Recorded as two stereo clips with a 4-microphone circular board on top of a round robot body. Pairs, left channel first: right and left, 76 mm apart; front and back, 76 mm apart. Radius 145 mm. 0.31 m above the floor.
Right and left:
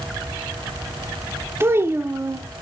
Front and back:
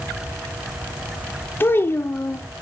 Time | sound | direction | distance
1.6 | a child speaking | 45° left | 0.5 m